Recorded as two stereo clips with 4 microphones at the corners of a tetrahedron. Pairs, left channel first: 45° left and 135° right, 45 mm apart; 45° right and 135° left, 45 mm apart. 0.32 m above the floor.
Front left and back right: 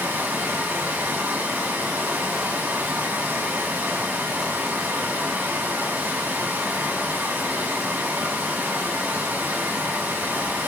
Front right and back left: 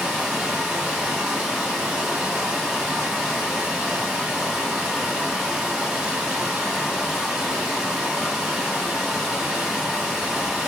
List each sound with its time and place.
0.0 s running water: 155° right, 1.9 m